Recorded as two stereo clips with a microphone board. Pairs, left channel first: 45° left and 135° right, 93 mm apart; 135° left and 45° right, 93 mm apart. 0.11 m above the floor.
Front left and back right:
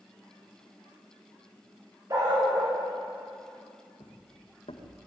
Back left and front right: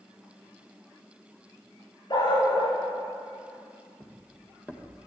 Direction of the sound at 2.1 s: 175° left.